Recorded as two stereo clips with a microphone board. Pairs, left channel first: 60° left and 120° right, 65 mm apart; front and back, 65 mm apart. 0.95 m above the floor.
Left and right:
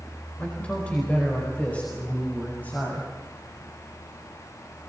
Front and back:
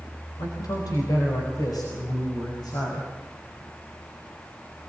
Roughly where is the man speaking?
Ahead.